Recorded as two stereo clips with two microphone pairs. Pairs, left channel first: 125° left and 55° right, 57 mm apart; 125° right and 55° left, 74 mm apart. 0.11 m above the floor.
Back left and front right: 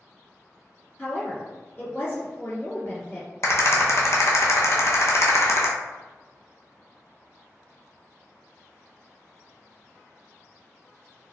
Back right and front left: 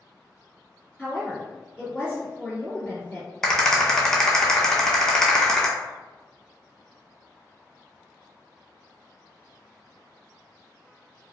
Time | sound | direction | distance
1.0 | a woman speaking | 125° left | 1.8 m
3.4 | a rattle | 150° left | 0.6 m